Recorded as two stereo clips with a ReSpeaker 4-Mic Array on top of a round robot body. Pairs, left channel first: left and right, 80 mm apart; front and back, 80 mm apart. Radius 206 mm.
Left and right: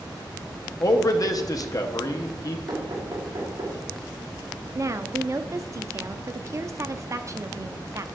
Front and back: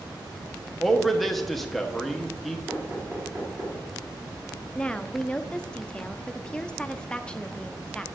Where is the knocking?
125° right, 3 m.